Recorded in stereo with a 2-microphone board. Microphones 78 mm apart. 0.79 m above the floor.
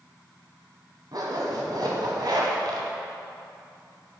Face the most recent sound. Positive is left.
turn(degrees=-65)  # may be behind; listen again after turning